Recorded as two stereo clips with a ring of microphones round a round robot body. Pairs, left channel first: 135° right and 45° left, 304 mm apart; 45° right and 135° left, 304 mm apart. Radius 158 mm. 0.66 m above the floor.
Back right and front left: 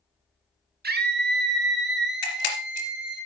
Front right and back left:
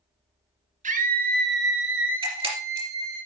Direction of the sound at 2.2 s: 150° right.